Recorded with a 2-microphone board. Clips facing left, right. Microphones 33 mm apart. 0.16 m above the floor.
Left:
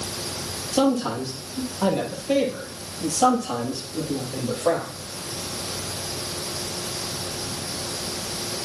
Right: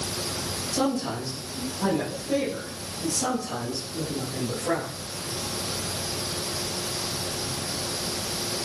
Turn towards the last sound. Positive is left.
turn(degrees=70)  # may be behind; listen again after turning